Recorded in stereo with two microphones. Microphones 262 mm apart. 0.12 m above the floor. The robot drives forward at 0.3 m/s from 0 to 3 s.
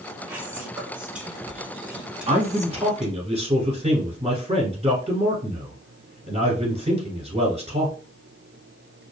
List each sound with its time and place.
0.3 s whispering: 5° right (ahead or behind), 1.0 m
2.3 s a man speaking: 25° right (ahead or behind), 1.3 m